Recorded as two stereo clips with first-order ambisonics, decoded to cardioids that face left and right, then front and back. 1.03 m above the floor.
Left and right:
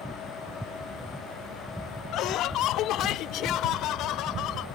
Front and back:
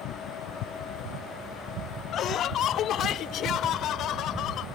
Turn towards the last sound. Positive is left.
turn(degrees=50)